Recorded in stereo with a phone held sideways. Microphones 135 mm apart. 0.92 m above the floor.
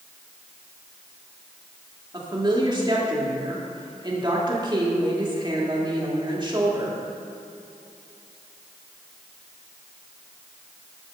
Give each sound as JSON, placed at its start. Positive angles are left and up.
{"t": 2.1, "sound": "a woman speaking", "side_deg": -35, "distance_m": 1.9}